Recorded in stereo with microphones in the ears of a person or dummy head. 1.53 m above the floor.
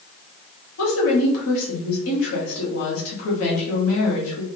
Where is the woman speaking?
85° left, 1.6 m.